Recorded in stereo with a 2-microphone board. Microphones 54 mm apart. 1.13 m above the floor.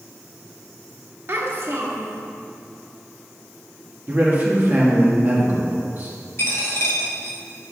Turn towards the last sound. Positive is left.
turn(degrees=50)  # may be behind; listen again after turning